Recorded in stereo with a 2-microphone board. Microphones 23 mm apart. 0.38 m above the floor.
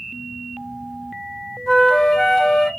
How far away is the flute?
About 0.6 m.